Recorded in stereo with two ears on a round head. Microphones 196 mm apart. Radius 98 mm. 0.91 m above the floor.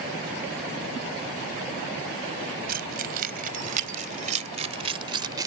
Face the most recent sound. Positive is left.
turn(degrees=-15)  # may be behind; listen again after turning